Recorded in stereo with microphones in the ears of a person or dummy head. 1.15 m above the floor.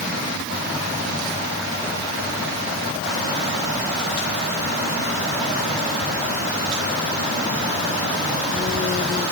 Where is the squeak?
No squeak in this recording.